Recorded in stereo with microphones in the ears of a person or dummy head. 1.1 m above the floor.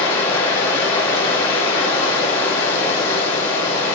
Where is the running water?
20° left (ahead or behind), 2.5 m.